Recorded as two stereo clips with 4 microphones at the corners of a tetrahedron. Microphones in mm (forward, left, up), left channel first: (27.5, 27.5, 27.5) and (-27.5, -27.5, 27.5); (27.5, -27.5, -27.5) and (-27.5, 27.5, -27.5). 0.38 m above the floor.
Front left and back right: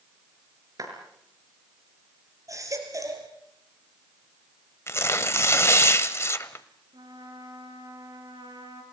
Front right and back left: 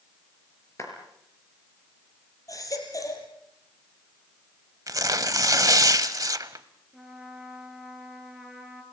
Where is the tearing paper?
95° left, 0.9 m.